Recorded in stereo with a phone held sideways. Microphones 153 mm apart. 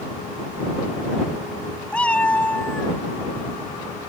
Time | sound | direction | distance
1.9 | a cat meowing | 10° left (ahead or behind) | ?